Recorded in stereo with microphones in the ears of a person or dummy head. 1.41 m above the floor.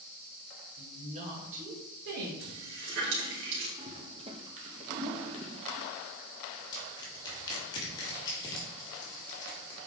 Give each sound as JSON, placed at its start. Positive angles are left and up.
{"t": 0.8, "sound": "a woman speaking", "side_deg": -25, "distance_m": 2.0}
{"t": 2.4, "sound": "a running tap", "side_deg": -65, "distance_m": 2.5}
{"t": 3.8, "sound": "a toilet flushing", "side_deg": -25, "distance_m": 0.8}
{"t": 6.7, "sound": "crushing", "side_deg": 20, "distance_m": 2.0}